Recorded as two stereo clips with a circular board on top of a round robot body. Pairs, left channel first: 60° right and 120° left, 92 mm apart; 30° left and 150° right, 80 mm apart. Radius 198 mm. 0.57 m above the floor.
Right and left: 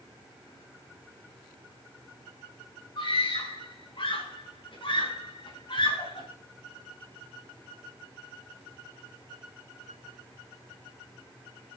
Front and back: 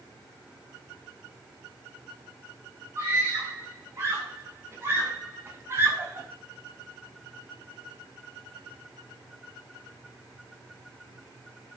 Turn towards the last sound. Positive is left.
turn(degrees=-95)